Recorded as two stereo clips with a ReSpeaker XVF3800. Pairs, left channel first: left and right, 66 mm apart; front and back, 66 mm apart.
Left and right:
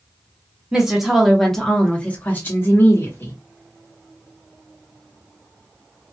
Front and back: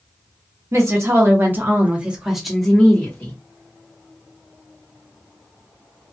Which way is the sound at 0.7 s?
165° right.